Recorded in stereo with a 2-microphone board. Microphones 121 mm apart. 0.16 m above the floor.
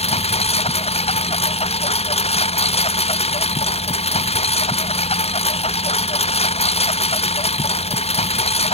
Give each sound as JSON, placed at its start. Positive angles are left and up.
{"t": 0.0, "sound": "a lawn mower", "side_deg": 65}